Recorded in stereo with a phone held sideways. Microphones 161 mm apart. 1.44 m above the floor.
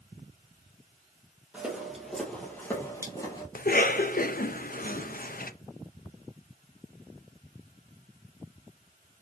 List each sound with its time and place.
1.5 s footsteps: 10° right (ahead or behind), 2.0 m; by 3.5 s 30° left (ahead or behind), 2 m
3.5 s a cough: 70° left (ahead or behind), 0.6 m